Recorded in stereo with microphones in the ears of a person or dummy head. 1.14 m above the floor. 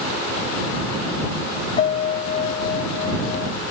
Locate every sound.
1.8 s a piano: 35° left (ahead or behind)